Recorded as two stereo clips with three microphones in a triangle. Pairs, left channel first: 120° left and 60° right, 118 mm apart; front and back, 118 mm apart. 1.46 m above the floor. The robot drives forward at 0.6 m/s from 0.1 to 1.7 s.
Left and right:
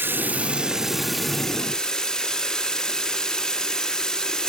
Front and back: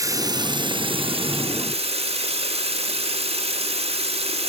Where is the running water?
130° right, 1.0 m; by 4.5 s 155° right, 1.7 m.